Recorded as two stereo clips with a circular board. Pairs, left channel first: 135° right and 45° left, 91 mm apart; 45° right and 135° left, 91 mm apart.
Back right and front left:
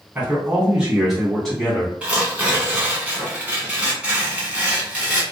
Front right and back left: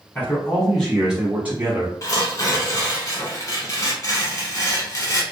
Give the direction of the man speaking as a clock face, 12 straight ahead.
12 o'clock.